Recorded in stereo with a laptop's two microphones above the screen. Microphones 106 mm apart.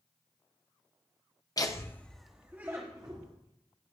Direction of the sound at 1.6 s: 35° left (ahead or behind).